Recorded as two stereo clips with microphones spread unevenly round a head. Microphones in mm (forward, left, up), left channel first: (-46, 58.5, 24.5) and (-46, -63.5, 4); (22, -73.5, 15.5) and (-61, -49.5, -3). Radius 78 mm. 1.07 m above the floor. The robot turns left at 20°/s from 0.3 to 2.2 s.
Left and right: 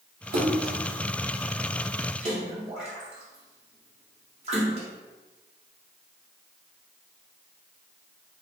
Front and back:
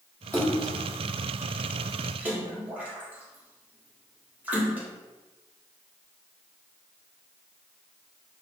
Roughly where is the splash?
Right.